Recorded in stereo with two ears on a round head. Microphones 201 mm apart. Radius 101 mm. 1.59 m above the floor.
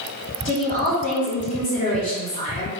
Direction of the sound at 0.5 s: 35° left (ahead or behind).